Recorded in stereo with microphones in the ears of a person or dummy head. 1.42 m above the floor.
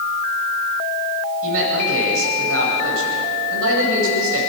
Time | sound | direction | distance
1.4 | a man speaking | 75° right (ahead or behind) | 9 m